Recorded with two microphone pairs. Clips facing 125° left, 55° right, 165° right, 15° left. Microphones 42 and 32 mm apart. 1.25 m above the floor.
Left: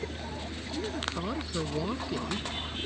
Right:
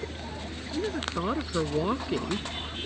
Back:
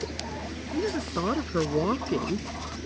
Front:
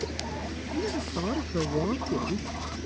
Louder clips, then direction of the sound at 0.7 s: Right 4 dB, back 3 dB; 125° right.